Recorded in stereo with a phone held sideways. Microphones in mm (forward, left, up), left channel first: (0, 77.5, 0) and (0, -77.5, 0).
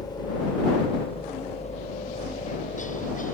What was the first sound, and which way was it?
A helicopter, 25° left (ahead or behind).